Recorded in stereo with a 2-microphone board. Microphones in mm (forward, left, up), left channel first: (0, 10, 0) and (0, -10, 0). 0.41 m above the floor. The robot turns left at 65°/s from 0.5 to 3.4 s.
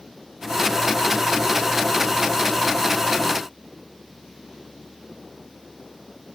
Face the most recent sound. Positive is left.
No sound to turn to.